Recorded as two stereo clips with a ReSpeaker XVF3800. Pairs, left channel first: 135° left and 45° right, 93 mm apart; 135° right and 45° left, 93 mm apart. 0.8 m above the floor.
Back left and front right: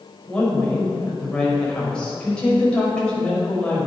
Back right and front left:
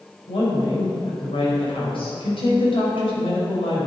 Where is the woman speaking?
145° right, 4.5 m.